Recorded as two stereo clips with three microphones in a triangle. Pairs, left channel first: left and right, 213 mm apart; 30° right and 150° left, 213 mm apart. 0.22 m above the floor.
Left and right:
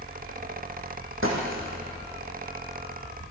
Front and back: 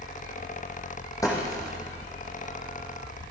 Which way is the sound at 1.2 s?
105° right.